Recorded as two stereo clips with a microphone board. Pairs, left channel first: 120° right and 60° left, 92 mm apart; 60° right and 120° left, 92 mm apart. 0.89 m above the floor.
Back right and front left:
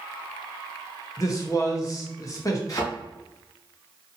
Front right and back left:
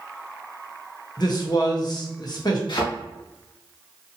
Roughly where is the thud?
Right.